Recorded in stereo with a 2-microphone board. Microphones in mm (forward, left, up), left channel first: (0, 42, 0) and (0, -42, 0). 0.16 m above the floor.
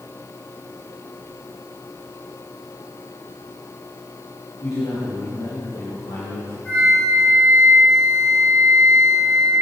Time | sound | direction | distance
4.6 | a man speaking | 75° left (ahead or behind) | 4.5 m
6.7 | a flute | 20° left (ahead or behind) | 5 m